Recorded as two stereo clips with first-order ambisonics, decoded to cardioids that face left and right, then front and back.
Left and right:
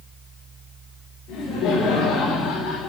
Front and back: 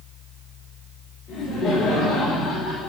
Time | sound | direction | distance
1.3 | laughter | 50° left | 5 m